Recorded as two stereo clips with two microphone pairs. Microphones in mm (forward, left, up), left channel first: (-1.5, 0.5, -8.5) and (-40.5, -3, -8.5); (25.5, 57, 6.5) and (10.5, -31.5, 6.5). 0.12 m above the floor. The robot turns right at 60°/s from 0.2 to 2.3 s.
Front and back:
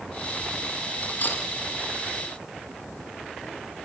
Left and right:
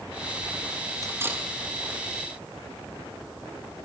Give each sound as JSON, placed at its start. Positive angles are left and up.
{"t": 1.0, "sound": "cutlery clinking", "azimuth_deg": -50, "distance_m": 2.0}